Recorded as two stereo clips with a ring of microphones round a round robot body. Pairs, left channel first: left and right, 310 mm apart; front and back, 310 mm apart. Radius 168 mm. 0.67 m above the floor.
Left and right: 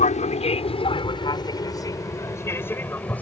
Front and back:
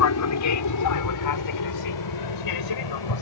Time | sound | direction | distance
0.0 | an aircraft | 30° left | ?